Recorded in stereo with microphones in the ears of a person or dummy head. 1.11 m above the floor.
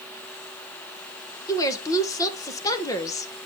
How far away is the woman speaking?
About 0.8 m.